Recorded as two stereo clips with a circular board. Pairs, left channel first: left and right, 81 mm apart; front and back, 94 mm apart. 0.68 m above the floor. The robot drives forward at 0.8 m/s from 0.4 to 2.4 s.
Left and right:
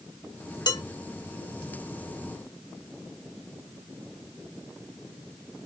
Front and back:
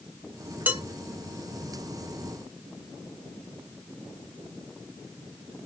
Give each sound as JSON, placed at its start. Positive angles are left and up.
{"t": 0.7, "sound": "dishes clattering", "azimuth_deg": 110, "distance_m": 1.1}